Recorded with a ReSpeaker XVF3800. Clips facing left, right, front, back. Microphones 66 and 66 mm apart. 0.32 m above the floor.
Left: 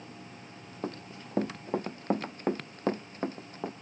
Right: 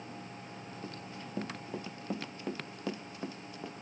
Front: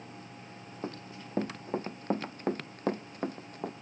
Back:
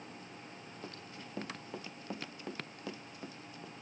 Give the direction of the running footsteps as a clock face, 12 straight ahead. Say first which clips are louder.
Left 9 dB, front 10 dB; 10 o'clock.